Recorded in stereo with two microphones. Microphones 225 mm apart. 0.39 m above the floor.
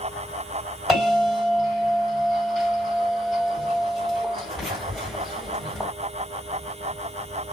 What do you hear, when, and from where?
0.9 s a bell: centre (ahead or behind), 2 m